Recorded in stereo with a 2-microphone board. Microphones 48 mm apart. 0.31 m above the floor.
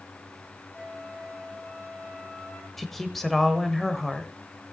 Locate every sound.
0.7 s a flute: 45° left (ahead or behind), 7 m
2.8 s a woman speaking: 5° left (ahead or behind), 1.1 m